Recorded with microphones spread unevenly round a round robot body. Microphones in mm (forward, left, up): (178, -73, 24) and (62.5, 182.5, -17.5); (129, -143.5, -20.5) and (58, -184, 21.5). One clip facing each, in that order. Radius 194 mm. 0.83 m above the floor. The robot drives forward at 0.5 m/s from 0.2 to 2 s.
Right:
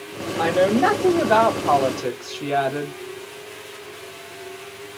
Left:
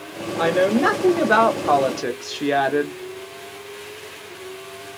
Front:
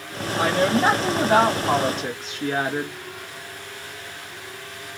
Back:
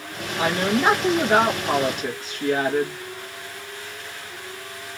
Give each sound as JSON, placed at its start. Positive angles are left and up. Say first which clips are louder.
{"t": 0.4, "sound": "a woman speaking", "louder": "even, front 1 dB", "azimuth_deg": 35, "distance_m": 1.6}